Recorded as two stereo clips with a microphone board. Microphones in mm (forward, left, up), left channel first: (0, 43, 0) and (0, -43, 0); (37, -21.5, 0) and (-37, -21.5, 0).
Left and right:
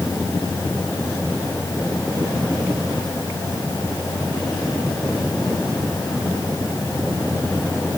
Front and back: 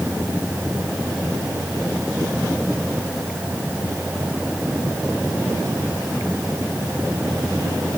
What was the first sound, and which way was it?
Only background noise.